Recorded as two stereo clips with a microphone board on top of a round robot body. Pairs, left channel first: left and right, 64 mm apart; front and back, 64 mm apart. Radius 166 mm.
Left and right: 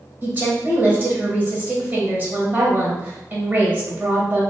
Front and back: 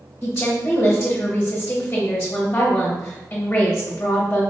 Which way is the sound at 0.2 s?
50° right.